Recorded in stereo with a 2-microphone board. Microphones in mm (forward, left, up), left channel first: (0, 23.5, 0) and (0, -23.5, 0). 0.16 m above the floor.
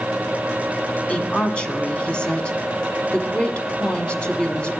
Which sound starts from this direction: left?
A woman speaking, at 1.1 s.